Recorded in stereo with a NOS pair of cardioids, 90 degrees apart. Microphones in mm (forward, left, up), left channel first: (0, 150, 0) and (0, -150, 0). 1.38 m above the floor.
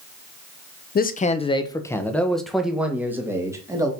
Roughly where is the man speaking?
Ahead left.